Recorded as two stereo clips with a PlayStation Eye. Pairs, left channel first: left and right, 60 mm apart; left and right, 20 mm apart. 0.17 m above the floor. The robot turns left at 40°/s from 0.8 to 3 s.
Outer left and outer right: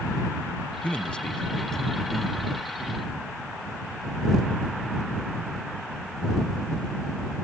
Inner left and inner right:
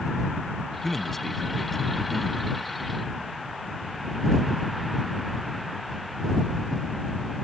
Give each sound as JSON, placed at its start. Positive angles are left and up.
{"t": 0.8, "sound": "a man speaking", "side_deg": 20}